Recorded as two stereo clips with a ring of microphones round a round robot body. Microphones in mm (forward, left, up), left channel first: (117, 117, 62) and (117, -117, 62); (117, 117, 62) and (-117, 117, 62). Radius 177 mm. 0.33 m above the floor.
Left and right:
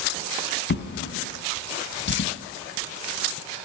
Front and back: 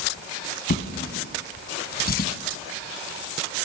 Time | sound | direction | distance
0.7 | a drawer | 50° left | 2 m